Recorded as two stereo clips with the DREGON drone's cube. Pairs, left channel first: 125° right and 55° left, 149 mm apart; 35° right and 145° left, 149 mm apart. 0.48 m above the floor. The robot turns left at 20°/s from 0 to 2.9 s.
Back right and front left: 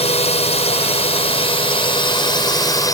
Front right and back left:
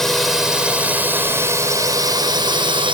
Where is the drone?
120° right; by 3.0 s straight behind.